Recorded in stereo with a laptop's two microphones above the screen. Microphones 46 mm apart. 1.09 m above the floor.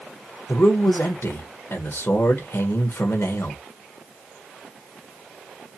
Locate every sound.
0.5 s a man speaking: 65° left (ahead or behind), 1.1 m